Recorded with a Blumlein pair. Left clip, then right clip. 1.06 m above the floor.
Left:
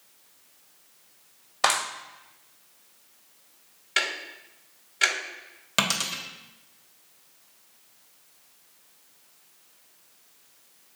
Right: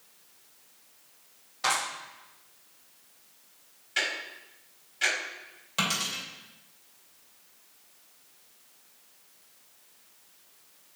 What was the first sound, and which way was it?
A clap, 55° left.